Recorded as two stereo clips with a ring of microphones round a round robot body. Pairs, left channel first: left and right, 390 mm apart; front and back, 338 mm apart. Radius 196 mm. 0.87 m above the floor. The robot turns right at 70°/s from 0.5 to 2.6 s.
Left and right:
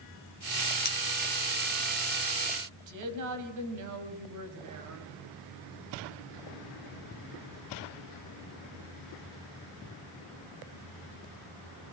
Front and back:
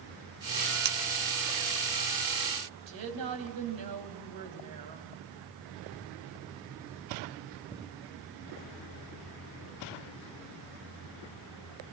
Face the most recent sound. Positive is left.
turn(degrees=-135)